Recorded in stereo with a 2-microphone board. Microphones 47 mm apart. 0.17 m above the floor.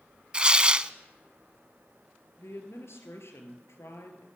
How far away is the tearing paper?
About 0.5 m.